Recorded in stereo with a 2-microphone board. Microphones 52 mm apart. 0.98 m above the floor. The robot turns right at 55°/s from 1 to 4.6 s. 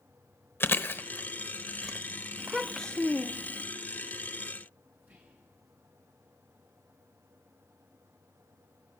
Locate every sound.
0.6 s chewing: 45° left (ahead or behind), 0.7 m; by 2.0 s 5° right (ahead or behind), 0.7 m
2.4 s a child speaking: 15° right, 0.5 m; by 3.6 s 55° left, 0.5 m
5.0 s whispering: 30° right (ahead or behind), 2 m